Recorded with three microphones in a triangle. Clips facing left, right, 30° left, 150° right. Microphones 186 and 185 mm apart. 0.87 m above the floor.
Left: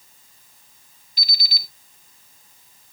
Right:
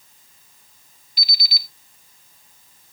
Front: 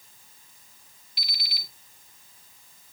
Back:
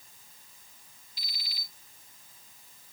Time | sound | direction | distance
1.2 | an alarm clock | 45° left | 1.7 m